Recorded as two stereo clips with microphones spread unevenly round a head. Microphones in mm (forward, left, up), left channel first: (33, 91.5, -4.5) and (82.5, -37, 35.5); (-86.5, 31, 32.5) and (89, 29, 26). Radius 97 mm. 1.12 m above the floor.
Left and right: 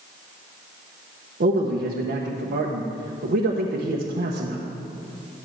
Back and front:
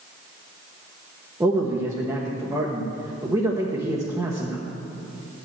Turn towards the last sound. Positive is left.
turn(degrees=-70)